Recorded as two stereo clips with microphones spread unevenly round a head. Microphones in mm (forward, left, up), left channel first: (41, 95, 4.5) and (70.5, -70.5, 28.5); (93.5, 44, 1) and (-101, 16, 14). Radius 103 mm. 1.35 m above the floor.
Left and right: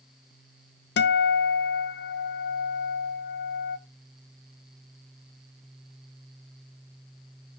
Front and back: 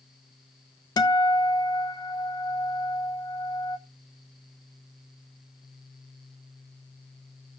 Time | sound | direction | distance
1.0 | a guitar | 80° left | 0.8 m